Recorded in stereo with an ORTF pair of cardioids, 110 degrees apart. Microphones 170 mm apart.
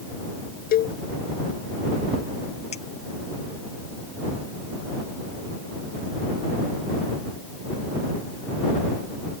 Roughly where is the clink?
Ahead left.